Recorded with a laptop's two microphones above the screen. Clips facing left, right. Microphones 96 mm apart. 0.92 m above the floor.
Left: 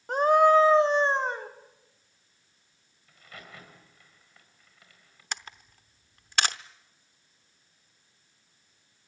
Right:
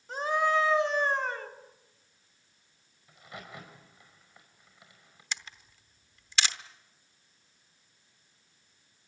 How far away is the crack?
About 5 m.